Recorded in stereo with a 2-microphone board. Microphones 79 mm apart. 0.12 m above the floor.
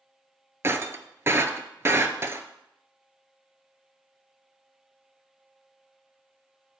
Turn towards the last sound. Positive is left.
turn(degrees=-35)  # may be behind; listen again after turning